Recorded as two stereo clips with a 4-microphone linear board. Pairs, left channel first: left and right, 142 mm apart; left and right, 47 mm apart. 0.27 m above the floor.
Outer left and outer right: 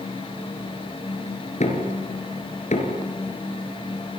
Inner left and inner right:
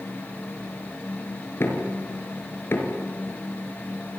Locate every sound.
1.6 s knocking: 55° left (ahead or behind), 4 m